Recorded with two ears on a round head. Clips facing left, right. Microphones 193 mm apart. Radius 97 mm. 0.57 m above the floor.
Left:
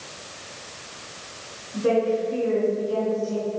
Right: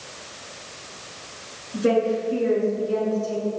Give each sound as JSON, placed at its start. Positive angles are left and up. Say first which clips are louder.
{"t": 1.7, "sound": "a woman speaking", "louder": "right 1 dB", "side_deg": -30, "distance_m": 6.0}